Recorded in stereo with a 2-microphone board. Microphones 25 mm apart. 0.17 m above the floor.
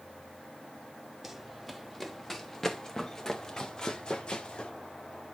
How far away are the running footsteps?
About 2.5 m.